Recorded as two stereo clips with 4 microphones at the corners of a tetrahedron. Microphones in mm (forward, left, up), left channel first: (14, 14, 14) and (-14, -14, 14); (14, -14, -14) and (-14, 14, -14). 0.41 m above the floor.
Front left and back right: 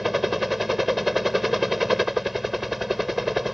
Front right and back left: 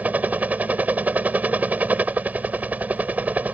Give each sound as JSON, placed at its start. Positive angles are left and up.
{"t": 0.0, "sound": "a helicopter", "azimuth_deg": 140}